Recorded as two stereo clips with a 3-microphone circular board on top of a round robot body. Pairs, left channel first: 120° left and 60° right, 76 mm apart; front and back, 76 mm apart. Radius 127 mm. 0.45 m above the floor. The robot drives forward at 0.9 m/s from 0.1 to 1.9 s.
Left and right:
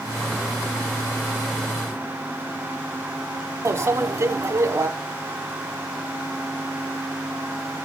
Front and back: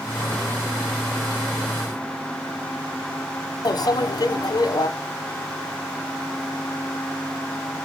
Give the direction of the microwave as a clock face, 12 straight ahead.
1 o'clock.